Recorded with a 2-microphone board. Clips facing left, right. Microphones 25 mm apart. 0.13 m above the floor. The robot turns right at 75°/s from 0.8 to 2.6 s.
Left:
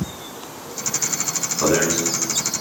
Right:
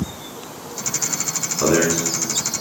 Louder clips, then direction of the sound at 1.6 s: Right 1 dB; centre (ahead or behind).